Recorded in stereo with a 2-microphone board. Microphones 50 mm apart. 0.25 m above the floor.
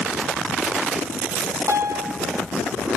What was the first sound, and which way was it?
A piano, 85° right.